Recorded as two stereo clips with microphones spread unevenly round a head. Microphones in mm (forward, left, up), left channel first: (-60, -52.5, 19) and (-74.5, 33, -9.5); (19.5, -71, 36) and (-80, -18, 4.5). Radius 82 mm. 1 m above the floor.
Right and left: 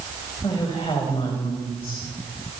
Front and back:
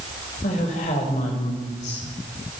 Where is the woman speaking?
20° right, 4 m; by 2.6 s 40° right, 4.5 m.